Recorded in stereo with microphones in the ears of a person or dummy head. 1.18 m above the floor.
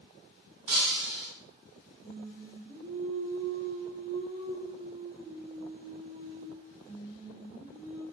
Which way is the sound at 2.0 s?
35° right (ahead or behind).